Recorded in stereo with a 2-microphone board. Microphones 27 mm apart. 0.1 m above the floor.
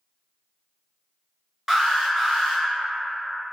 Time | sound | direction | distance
1.7 | an alarm | 15° right (ahead or behind) | 0.8 m